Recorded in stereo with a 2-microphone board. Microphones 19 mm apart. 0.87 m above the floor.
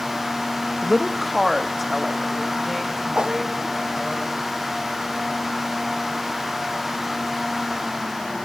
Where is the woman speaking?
5° left (ahead or behind), 0.7 m; by 4.2 s centre (ahead or behind), 5 m.